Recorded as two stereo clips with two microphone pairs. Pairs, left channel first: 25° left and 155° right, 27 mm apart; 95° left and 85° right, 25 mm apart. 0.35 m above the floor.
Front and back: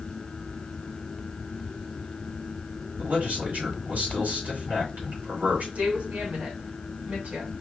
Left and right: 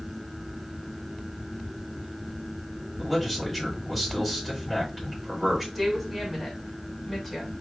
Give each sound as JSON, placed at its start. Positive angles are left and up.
{"t": 3.0, "sound": "a man speaking", "azimuth_deg": -165, "distance_m": 3.5}
{"t": 5.8, "sound": "a woman speaking", "azimuth_deg": -175, "distance_m": 2.5}